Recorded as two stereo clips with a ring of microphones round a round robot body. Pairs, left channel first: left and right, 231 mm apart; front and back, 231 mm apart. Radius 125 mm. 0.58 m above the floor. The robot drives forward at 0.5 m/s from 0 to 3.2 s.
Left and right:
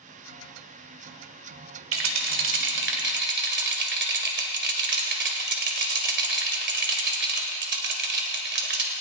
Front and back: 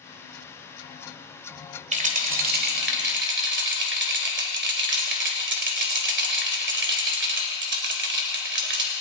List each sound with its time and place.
1.9 s a rattle: 120° right, 1.6 m; by 8.9 s 135° right, 2 m